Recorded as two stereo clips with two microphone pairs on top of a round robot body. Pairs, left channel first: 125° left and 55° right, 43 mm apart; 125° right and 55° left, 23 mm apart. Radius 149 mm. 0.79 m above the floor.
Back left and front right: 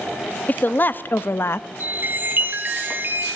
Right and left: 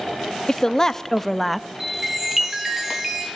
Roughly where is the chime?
Ahead.